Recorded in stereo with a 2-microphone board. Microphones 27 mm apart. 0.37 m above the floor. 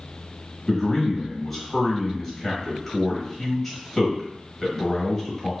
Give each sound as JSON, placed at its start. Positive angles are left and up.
{"t": 0.7, "sound": "a man speaking", "side_deg": 10, "distance_m": 1.7}